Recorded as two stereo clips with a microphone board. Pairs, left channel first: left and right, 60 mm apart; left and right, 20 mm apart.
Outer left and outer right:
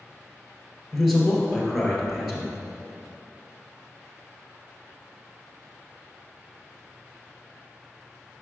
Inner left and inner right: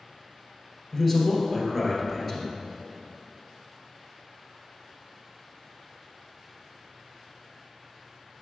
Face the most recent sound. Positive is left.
turn(degrees=5)  # may be behind; listen again after turning